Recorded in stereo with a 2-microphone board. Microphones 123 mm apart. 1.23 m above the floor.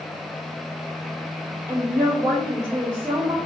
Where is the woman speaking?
20° right (ahead or behind), 2.5 m.